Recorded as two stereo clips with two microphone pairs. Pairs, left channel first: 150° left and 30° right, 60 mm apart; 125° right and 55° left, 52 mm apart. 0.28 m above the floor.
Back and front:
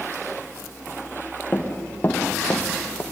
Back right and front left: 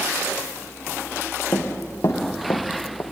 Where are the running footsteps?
150° right, 3.5 m; by 3.0 s 160° right, 2.5 m.